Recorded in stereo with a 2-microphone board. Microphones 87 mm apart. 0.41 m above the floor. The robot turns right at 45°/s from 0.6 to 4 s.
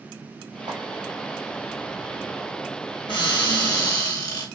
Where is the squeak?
I don't hear a squeak.